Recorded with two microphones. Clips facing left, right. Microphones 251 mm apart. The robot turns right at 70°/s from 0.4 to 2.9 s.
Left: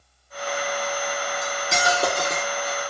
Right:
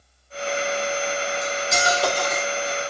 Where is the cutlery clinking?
80° left, 2 m; by 2.8 s 175° left, 2 m.